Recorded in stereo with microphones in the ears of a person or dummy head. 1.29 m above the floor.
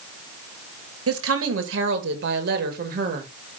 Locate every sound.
1.1 s a woman speaking: 80° right, 2 m; by 3.3 s 45° right (ahead or behind), 2.0 m